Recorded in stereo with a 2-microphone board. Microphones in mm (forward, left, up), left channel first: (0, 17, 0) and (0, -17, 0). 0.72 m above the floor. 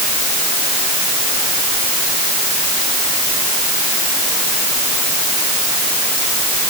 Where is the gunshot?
I don't hear a gunshot.